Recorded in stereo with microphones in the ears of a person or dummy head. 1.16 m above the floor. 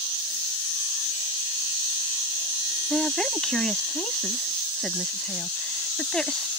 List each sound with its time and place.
2.9 s a woman speaking: centre (ahead or behind)